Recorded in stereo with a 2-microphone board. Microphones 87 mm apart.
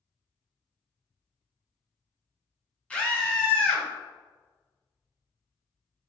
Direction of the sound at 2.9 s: 15° left (ahead or behind).